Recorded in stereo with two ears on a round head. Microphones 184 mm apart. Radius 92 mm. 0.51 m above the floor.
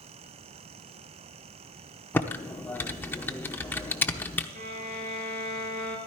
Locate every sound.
2.1 s typing on a keyboard: 10° left (ahead or behind), 0.8 m
4.5 s a violin: 40° right (ahead or behind), 3.5 m